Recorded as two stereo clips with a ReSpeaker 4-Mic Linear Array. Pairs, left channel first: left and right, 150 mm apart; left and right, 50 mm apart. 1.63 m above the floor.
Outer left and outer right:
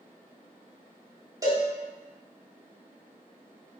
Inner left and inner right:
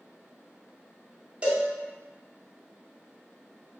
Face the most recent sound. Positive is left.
turn(degrees=-25)  # may be behind; listen again after turning